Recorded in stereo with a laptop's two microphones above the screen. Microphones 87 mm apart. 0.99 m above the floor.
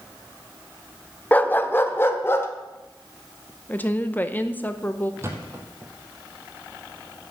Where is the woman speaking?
20° left (ahead or behind), 0.7 m.